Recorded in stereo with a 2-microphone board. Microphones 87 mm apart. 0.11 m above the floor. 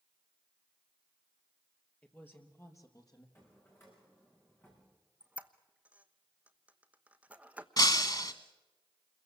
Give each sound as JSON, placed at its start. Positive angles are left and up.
{"t": 2.0, "sound": "a woman speaking", "side_deg": 15, "distance_m": 2.5}
{"t": 3.4, "sound": "a drawer", "side_deg": 25, "distance_m": 6.5}
{"t": 5.2, "sound": "a squeak", "side_deg": -15, "distance_m": 1.1}
{"t": 7.8, "sound": "breaking glass", "side_deg": 50, "distance_m": 1.3}